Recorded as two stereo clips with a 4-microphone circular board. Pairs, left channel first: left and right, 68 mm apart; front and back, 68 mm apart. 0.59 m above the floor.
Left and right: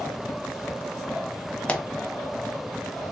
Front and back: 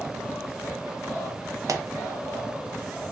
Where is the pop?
160° left, 0.5 m.